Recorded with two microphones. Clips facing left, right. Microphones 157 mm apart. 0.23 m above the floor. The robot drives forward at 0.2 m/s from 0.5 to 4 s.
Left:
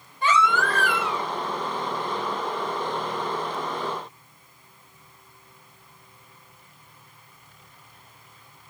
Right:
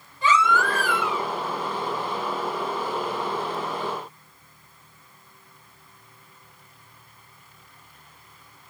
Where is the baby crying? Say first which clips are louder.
Right 1 dB; 60° left (ahead or behind), 0.6 m; by 1.2 s 65° left (ahead or behind), 0.6 m.